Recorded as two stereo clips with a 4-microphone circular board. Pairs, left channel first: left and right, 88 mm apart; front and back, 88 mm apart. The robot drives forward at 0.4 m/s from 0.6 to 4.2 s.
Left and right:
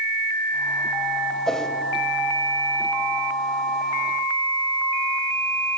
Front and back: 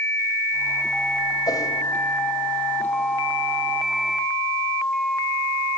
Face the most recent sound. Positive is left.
turn(degrees=35)